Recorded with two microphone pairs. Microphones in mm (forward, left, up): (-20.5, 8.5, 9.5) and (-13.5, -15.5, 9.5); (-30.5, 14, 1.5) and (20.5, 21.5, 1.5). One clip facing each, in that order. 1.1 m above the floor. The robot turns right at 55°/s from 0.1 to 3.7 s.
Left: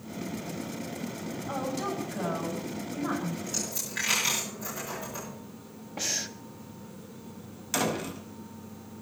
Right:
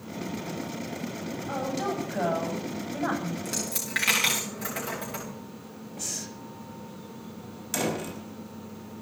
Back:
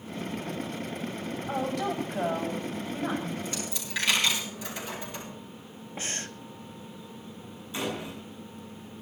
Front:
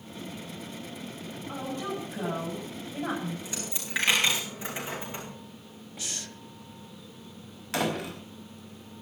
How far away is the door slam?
About 5 m.